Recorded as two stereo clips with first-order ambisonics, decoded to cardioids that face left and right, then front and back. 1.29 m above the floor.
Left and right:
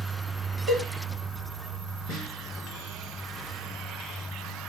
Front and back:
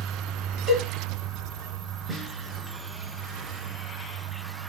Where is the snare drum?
125° left, 0.9 m.